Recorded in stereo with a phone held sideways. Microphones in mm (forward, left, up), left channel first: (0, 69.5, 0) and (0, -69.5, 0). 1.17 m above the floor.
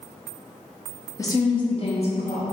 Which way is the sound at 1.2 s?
20° left (ahead or behind).